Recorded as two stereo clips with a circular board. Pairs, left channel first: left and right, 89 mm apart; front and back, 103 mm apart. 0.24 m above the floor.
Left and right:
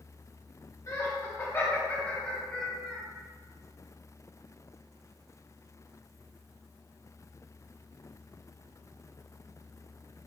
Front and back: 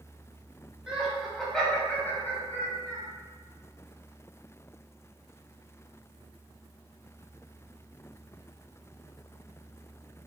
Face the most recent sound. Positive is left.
turn(degrees=-5)